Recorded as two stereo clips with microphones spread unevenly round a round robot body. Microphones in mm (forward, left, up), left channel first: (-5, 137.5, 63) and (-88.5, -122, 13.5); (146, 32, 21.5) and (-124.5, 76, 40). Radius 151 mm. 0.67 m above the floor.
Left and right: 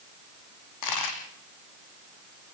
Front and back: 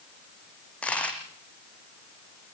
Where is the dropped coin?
75° left, 4.5 m.